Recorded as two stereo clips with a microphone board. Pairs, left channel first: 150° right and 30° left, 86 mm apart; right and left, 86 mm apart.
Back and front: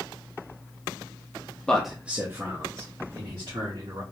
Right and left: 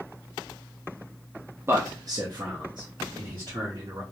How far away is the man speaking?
About 0.7 m.